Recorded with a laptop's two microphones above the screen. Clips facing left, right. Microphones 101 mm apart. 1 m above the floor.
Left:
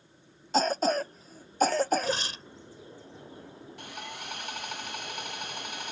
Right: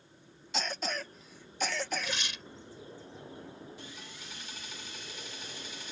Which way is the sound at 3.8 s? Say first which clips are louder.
Left 7 dB; 65° left (ahead or behind).